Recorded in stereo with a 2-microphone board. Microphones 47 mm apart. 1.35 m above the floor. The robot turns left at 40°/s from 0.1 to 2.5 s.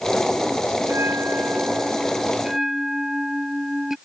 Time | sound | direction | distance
0.8 | a bell | 100° right | ?